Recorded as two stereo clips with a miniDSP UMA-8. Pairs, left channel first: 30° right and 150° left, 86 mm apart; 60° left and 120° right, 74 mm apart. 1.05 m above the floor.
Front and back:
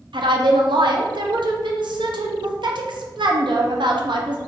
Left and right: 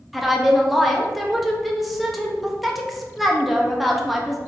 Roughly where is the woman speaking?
Behind left.